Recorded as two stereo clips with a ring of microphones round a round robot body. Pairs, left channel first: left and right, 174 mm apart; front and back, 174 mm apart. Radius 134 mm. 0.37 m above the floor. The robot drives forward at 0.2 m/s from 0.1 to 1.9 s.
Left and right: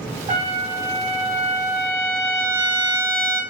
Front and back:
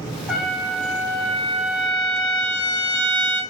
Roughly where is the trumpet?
Right.